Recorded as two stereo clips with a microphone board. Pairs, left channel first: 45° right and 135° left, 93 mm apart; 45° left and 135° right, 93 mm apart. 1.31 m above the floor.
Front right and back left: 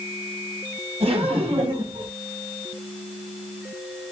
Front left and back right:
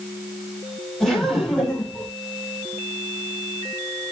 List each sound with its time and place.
1.0 s laughter: 130° left, 5 m